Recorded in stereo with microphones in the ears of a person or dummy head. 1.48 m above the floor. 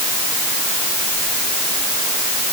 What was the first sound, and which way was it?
Only background noise.